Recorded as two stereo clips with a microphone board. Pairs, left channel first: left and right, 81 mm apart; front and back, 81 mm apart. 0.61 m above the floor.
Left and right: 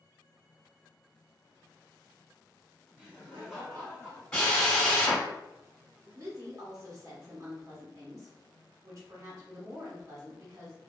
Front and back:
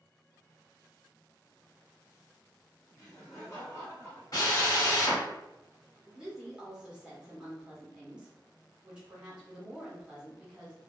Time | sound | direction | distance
3.0 | laughter | 25° right | 1.3 m
4.3 | a drill | 15° left | 1.7 m
6.0 | a woman speaking | 110° right | 1.0 m